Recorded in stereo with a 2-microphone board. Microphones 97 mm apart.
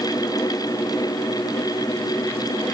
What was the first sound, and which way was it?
Only background noise.